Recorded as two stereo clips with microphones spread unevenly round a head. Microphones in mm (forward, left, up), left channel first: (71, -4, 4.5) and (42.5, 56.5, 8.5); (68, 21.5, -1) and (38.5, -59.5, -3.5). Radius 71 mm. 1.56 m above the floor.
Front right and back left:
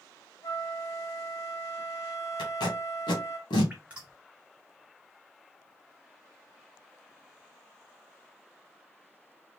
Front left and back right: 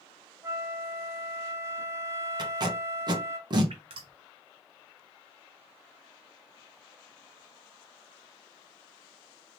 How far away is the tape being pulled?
About 1.5 m.